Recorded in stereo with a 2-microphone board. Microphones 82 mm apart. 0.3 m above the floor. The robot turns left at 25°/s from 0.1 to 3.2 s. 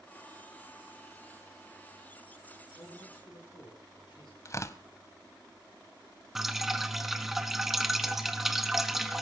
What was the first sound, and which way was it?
A man speaking, 80° left.